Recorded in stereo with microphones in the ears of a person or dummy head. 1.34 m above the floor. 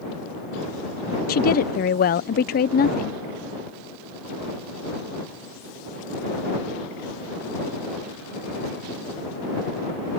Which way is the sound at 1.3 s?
50° left (ahead or behind).